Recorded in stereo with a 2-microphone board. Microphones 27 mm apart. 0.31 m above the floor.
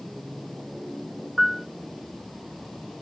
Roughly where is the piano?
Centre.